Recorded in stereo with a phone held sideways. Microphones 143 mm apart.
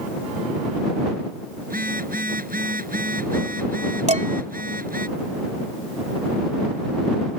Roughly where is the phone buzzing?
Right.